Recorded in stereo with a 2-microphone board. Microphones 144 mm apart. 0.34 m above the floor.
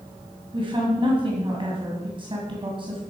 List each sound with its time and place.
0.5 s a woman speaking: 35° right (ahead or behind), 2 m